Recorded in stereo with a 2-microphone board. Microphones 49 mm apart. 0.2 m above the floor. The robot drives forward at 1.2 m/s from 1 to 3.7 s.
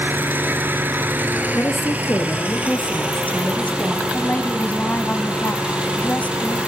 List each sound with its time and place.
0.0 s an engine running: 45° right (ahead or behind), 3 m; by 6.7 s 20° right (ahead or behind), 5.5 m
1.5 s a woman speaking: 55° left (ahead or behind), 2.5 m; by 4.0 s 30° left (ahead or behind), 4.5 m
4.1 s a woman speaking: 35° left (ahead or behind), 1.3 m